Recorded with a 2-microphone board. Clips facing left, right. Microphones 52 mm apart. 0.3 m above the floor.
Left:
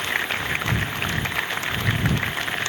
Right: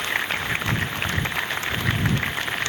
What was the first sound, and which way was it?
Only background noise.